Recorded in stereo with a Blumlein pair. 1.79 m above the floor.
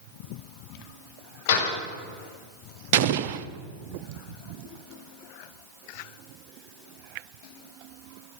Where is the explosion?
45° right, 0.7 m.